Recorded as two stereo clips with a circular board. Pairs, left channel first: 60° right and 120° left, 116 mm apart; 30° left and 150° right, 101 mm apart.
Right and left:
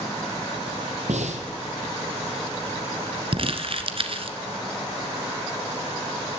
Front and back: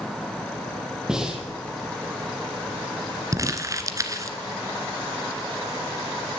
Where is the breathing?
125° left, 3 m.